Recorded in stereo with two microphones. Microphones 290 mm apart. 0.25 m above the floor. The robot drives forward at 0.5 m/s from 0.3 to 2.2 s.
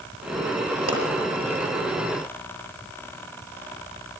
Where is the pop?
50° right (ahead or behind), 6 m; by 1.0 s 55° right (ahead or behind), 6 m.